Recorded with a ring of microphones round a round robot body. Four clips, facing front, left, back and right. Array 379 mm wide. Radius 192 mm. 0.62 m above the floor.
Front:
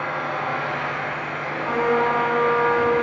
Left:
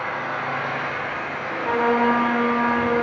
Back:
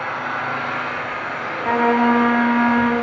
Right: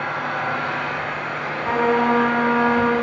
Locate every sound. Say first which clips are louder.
0.0 s an engine running: right 2 dB, back 1 dB; 110° right, 3.5 m
1.6 s a trumpet: right 1 dB, back 4 dB; 175° left, 1.5 m